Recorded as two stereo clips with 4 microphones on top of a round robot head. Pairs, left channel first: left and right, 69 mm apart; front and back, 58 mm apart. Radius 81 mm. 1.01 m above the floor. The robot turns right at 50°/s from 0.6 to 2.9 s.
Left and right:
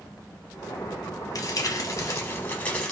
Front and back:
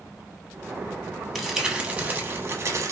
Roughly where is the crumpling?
Left.